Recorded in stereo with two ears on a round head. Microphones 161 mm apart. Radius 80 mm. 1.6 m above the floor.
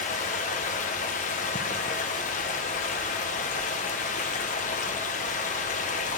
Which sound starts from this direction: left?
Running water, at 0.0 s.